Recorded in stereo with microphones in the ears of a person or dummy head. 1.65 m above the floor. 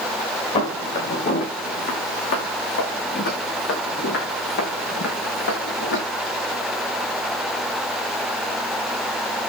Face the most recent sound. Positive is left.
turn(degrees=75)  # may be behind; listen again after turning